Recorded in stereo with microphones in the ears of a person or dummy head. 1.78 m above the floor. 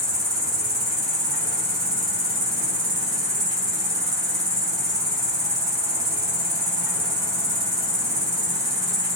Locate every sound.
0.0 s an insect: 15° right (ahead or behind), 2.5 m